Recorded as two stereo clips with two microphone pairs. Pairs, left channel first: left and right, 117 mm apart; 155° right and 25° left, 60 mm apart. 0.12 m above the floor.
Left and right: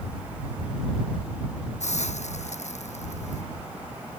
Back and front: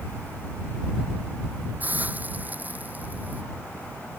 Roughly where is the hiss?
Left.